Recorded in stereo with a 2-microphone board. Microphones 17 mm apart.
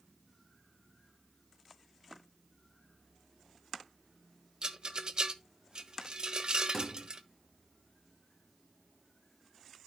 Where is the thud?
20° left (ahead or behind), 3 m.